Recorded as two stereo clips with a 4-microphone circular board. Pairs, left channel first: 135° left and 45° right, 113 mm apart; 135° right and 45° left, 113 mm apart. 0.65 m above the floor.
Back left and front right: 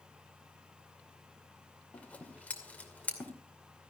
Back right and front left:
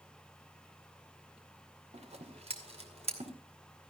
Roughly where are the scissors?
Ahead left.